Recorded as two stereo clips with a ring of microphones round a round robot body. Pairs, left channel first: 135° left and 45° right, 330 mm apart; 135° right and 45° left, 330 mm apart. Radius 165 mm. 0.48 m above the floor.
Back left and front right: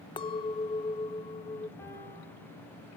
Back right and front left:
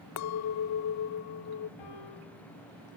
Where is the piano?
140° right, 5.5 m.